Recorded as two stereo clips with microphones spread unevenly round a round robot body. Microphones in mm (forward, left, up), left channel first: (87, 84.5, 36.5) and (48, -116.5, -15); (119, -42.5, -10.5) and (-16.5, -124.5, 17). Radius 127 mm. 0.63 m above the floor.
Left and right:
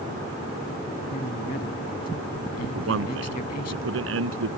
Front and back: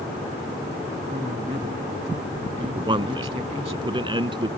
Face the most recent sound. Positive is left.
turn(degrees=-90)